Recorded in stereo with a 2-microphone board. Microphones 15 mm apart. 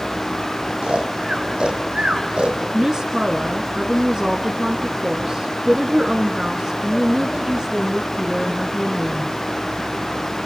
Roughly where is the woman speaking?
Right.